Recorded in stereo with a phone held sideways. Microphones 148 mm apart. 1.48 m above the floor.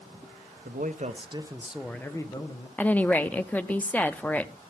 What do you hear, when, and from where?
0.7 s a man speaking: 65° right (ahead or behind), 1.1 m; by 2.7 s 30° left (ahead or behind), 1.4 m
2.8 s a woman speaking: 10° left (ahead or behind), 0.5 m